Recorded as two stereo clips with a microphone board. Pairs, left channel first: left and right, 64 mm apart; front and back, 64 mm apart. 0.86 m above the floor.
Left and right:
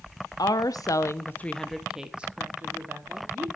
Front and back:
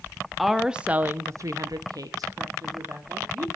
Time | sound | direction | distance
0.4 | a woman speaking | 90° left | 0.9 m